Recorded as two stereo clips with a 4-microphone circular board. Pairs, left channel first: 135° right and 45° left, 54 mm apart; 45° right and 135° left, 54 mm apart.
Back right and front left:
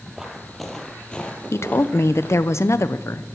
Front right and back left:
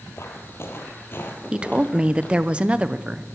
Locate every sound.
0.1 s footsteps: 35° right, 2 m; by 2.5 s 105° right, 2.5 m
1.5 s a woman speaking: 155° right, 0.6 m